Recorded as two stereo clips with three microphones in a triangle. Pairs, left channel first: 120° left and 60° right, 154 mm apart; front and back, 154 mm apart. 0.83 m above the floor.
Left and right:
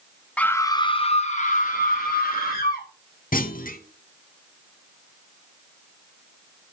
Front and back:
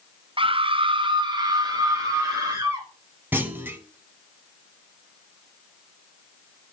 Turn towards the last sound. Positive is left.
turn(degrees=105)